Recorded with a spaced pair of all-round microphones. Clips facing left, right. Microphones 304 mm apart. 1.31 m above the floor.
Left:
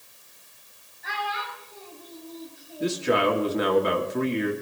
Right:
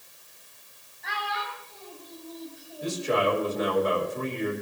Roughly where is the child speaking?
Centre.